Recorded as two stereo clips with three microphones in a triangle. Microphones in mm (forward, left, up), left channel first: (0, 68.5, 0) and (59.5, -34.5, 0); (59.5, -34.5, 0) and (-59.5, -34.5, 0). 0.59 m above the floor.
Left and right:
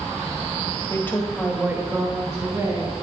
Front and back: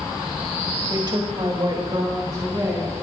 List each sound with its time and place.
0.9 s a woman speaking: 155° left, 1.0 m; by 2.9 s 120° right, 3 m